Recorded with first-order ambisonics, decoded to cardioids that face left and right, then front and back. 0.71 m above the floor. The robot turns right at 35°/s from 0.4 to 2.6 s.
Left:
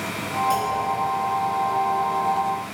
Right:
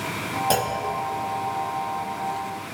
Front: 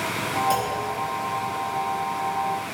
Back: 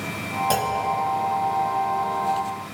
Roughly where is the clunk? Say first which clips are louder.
Right 1 dB, back 1 dB; behind right.